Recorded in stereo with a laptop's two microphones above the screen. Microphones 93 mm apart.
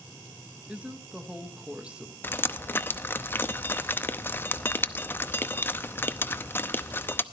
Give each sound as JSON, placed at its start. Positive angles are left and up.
{"t": 0.7, "sound": "a woman speaking", "side_deg": -15, "distance_m": 0.8}
{"t": 2.2, "sound": "dripping", "side_deg": 25, "distance_m": 0.6}